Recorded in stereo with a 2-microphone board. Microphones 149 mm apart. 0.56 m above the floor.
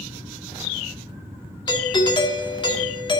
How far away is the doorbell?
About 1.6 m.